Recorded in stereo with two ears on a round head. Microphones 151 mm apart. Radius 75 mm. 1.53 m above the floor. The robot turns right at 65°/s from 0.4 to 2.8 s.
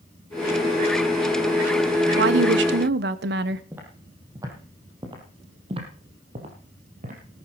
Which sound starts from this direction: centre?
Footsteps, at 3.7 s.